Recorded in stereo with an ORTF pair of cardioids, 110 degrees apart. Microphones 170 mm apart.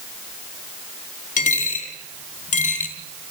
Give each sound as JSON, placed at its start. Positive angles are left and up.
{"t": 1.4, "sound": "a dropped coin", "azimuth_deg": 50, "distance_m": 3.0}